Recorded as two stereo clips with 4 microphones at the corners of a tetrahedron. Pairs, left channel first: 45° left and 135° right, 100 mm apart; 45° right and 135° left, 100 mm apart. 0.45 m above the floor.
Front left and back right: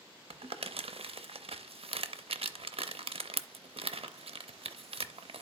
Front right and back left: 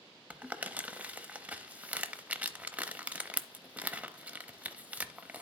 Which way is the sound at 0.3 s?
150° right.